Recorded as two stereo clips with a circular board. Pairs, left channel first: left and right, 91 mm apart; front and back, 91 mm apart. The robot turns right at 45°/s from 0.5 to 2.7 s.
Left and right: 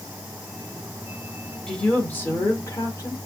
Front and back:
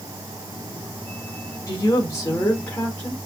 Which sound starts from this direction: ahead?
A woman speaking, at 1.7 s.